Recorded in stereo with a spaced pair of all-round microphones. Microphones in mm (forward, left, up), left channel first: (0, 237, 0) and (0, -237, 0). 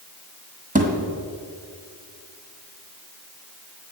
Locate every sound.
0.8 s a thud: 15° right (ahead or behind), 1.5 m